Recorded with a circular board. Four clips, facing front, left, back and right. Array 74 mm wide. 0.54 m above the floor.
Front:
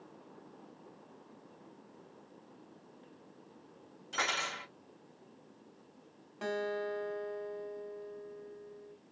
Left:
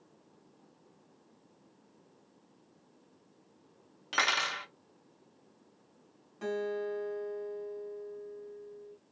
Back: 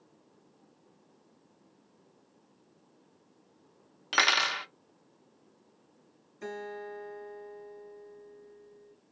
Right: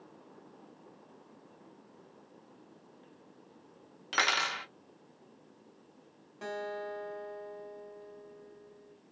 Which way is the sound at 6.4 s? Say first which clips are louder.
Left 4 dB, front 4 dB; 10° right.